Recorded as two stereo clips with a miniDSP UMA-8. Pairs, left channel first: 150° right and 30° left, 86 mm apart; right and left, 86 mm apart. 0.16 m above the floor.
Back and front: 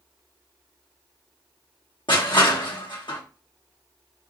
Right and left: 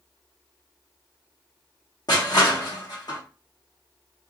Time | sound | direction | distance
2.1 | crushing | 130° right | 2.5 m